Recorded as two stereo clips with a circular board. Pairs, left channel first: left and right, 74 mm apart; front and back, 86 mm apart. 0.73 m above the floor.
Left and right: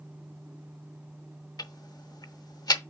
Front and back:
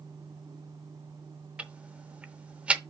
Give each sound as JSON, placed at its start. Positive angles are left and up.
{"t": 1.6, "sound": "ticking", "azimuth_deg": 105, "distance_m": 0.6}